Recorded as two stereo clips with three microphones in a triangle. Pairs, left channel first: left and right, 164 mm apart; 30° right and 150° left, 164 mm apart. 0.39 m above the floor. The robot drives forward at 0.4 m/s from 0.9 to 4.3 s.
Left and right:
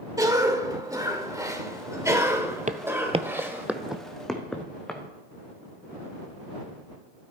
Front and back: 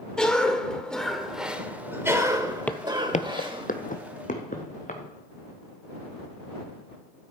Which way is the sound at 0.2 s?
110° right.